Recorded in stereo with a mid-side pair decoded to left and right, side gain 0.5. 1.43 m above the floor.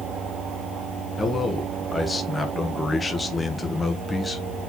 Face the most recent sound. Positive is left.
turn(degrees=25)